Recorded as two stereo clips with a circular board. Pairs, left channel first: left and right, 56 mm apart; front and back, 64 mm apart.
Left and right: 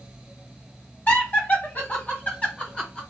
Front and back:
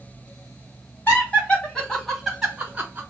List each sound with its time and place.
1.1 s laughter: 55° left, 2 m; by 3.0 s 145° left, 1.6 m